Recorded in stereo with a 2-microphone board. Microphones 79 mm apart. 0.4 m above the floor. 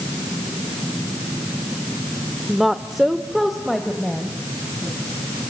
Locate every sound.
2.5 s a woman speaking: 5° right (ahead or behind), 0.9 m; by 5.0 s centre (ahead or behind), 3 m